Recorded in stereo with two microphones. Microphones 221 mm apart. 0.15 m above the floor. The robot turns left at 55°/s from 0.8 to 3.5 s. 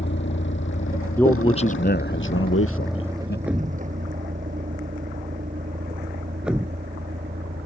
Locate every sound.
0.0 s a vehicle: 55° left (ahead or behind); by 7.7 s 35° right (ahead or behind)
1.2 s a man speaking: 175° left; by 3.4 s 55° left
3.5 s a thud: 5° right (ahead or behind)